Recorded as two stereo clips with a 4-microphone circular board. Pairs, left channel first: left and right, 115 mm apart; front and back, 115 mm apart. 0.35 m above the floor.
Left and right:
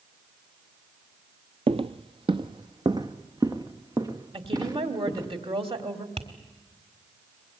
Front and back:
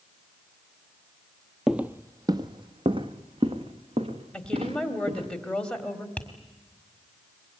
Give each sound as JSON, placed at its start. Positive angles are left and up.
{"t": 1.7, "sound": "footsteps", "azimuth_deg": -95, "distance_m": 0.5}
{"t": 4.3, "sound": "a woman speaking", "azimuth_deg": -80, "distance_m": 1.9}
{"t": 6.2, "sound": "tapping", "azimuth_deg": -75, "distance_m": 1.8}